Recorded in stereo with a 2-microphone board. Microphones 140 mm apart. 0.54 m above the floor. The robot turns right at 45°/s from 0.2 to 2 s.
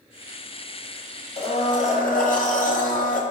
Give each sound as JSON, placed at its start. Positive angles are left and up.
{"t": 1.4, "sound": "a blender", "side_deg": 45, "distance_m": 1.3}